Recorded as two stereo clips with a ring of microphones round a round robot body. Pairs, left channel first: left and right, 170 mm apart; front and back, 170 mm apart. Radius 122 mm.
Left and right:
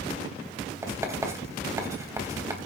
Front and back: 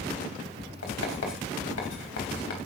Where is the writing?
15° right, 3.5 m.